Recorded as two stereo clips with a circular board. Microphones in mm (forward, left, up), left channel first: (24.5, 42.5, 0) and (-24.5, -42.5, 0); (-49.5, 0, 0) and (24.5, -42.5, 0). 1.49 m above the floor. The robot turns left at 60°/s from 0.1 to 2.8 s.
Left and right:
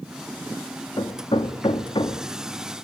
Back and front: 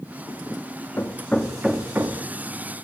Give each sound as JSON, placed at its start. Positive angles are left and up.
{"t": 1.0, "sound": "hammering", "azimuth_deg": 95, "distance_m": 1.8}